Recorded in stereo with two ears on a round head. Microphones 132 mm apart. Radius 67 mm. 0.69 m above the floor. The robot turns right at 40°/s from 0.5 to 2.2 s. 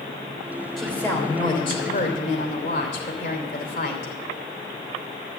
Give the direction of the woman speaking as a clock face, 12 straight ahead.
12 o'clock.